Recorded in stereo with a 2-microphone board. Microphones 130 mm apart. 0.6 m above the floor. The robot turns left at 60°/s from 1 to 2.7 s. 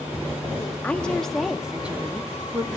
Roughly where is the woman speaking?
Centre.